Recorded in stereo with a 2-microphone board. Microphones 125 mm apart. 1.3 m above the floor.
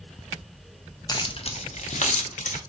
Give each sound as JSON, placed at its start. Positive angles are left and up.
{"t": 1.1, "sound": "keys jangling", "side_deg": 35, "distance_m": 0.6}